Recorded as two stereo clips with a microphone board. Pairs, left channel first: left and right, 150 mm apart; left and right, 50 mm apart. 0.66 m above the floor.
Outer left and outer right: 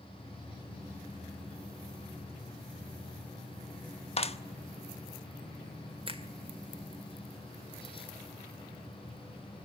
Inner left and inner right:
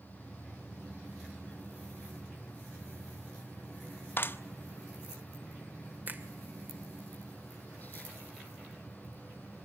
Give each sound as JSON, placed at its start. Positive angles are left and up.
{"t": 4.2, "sound": "a clap", "side_deg": 45, "distance_m": 1.0}
{"t": 6.1, "sound": "a finger snap", "side_deg": -35, "distance_m": 2.0}